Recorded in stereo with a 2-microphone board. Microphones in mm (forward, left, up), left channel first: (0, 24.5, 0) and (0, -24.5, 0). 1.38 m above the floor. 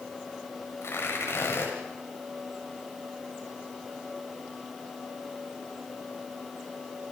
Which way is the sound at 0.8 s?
65° left (ahead or behind).